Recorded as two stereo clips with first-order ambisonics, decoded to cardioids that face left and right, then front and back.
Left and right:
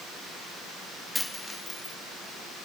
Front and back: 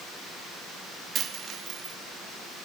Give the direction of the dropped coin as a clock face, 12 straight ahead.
6 o'clock.